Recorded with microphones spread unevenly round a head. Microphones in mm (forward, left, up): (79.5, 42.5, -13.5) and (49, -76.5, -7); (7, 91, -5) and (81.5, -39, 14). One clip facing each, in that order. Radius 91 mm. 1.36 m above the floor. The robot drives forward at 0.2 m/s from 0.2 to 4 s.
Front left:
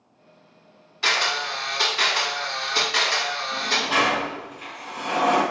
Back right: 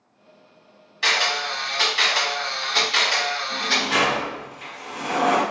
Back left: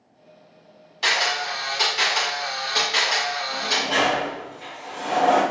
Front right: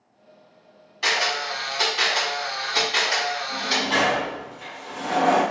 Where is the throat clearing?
I don't hear throat clearing.